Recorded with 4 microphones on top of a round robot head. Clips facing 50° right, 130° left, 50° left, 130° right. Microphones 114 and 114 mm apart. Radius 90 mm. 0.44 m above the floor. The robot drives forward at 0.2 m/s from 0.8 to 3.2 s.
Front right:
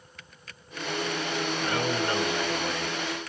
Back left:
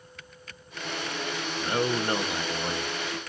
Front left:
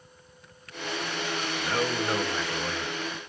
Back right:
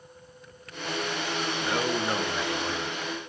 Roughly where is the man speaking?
Behind left.